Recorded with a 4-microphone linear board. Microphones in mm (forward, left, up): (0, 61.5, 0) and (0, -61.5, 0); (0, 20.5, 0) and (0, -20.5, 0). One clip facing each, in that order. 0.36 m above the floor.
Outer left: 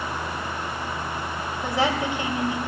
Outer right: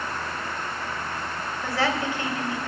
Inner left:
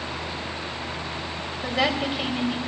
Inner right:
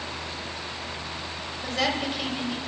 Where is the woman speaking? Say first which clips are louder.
Outer left 2 dB, inner left 3 dB; 20° left (ahead or behind), 2.0 m.